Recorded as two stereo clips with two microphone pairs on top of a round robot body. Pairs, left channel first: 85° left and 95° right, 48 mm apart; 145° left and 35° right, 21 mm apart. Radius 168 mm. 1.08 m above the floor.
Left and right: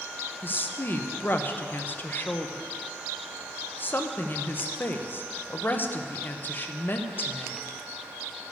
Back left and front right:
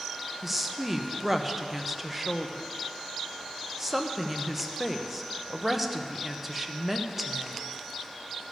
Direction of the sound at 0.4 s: 40° left.